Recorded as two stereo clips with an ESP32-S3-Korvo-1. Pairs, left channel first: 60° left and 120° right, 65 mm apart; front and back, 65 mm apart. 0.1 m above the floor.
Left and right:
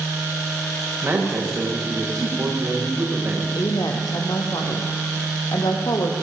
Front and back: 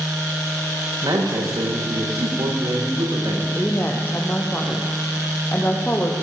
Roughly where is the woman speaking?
Ahead left.